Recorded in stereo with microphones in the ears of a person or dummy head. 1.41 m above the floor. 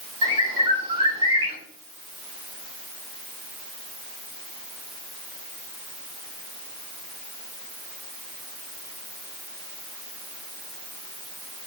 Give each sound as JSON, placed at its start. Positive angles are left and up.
{"t": 0.2, "sound": "a bird", "side_deg": -25, "distance_m": 5.5}